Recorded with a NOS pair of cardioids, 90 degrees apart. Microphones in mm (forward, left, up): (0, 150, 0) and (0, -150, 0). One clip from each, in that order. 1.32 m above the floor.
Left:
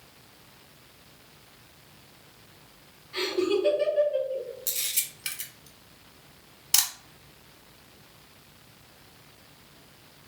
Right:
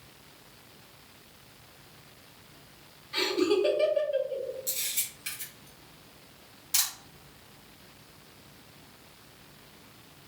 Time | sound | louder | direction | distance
3.1 | laughter | even | 25° right | 1.0 m
4.7 | a camera shutter | left 2 dB | 60° left | 1.2 m